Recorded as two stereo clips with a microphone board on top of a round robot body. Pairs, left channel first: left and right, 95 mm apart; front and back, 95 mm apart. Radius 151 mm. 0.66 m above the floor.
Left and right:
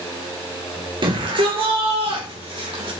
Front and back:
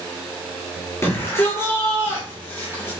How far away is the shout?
About 3.5 m.